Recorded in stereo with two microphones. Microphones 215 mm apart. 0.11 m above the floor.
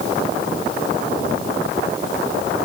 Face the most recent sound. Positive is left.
No sound to turn to.